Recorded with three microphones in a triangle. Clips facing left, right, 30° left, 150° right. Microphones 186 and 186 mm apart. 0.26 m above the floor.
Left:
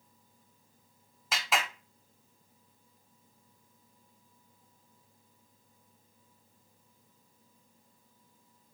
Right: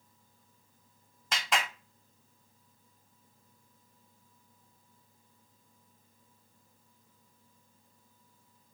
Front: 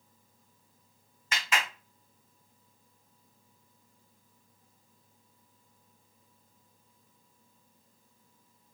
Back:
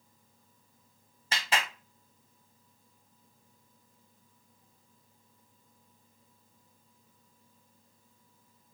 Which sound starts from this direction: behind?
A clap, at 1.3 s.